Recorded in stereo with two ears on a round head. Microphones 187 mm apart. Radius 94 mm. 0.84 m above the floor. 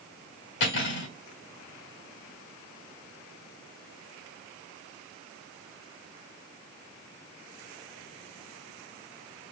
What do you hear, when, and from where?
0.6 s cutlery clinking: 55° left (ahead or behind), 1.8 m